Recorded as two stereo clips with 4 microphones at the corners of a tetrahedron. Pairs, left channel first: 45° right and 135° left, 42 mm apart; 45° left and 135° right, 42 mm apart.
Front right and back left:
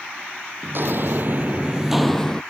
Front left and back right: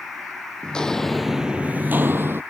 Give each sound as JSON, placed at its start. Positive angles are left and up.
{"t": 0.6, "sound": "footsteps", "azimuth_deg": 110}